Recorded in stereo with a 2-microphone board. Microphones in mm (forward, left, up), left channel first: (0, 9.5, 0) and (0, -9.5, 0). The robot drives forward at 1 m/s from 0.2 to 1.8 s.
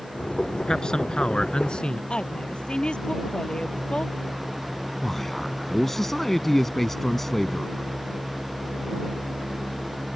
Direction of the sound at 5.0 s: 10° left (ahead or behind).